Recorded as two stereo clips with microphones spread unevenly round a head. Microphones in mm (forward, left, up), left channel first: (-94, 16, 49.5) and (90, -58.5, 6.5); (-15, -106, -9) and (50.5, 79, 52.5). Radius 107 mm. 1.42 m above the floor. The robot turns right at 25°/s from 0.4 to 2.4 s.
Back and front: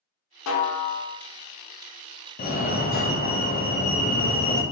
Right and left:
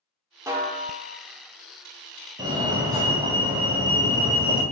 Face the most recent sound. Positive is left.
turn(degrees=155)